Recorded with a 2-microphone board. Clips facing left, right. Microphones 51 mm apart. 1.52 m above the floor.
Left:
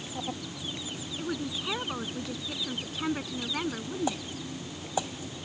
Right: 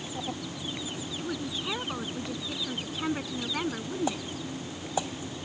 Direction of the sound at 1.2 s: 5° left (ahead or behind).